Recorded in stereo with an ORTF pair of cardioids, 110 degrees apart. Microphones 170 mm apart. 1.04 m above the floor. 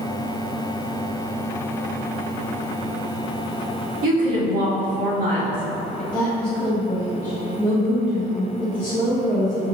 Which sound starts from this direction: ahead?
A woman speaking, at 6.1 s.